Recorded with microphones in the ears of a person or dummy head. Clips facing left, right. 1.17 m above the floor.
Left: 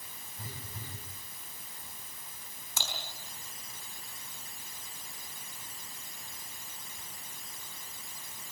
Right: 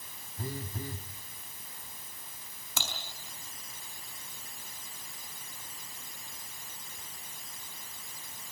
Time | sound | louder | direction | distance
0.4 | a phone buzzing | right 9 dB | 40° right (ahead or behind) | 1.8 m
2.8 | typing on a keyboard | right 1 dB | 55° right (ahead or behind) | 5 m